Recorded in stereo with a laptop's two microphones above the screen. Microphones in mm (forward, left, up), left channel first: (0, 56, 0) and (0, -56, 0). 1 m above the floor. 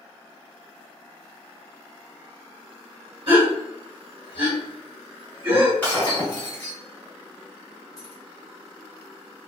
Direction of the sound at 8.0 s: 60° right (ahead or behind).